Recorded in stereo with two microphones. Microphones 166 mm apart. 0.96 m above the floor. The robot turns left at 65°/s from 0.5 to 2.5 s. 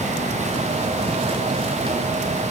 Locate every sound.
Only background noise.